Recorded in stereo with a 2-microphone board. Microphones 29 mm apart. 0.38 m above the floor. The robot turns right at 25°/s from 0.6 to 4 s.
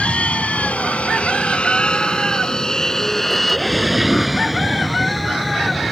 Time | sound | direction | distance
0.0 | an aircraft | 45° left (ahead or behind) | ?